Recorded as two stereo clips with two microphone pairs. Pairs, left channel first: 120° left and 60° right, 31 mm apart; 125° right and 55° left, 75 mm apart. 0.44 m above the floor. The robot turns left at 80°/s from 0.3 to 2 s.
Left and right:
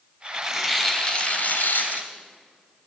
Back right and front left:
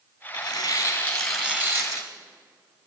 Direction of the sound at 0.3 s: 135° right.